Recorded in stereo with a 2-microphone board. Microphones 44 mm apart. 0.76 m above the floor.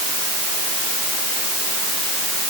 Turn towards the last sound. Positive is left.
No sound to turn to.